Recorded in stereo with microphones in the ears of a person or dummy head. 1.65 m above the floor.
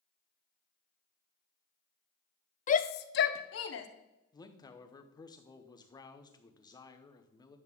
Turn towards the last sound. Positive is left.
turn(degrees=20)  # may be behind; listen again after turning